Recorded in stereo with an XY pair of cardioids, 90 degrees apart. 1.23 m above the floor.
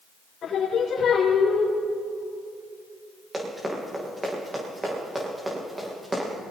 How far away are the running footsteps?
About 7 m.